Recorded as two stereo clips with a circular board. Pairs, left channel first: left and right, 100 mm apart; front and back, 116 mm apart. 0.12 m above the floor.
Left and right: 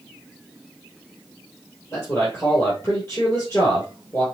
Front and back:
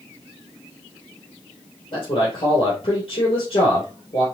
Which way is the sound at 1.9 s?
30° left.